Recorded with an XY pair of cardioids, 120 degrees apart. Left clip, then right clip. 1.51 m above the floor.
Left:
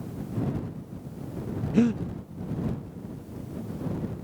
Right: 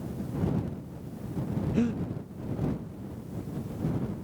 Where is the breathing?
25° left.